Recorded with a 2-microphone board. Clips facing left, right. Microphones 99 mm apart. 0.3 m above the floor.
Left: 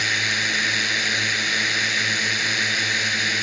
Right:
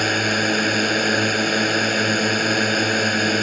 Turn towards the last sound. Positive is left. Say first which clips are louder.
# right 6 dB
turn(degrees=-50)  # may be behind; listen again after turning